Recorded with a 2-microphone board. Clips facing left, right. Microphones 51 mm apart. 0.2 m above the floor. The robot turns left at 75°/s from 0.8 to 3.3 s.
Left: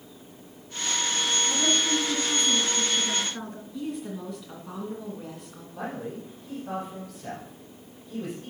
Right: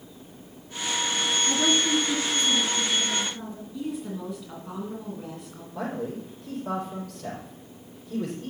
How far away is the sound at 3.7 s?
About 2.5 m.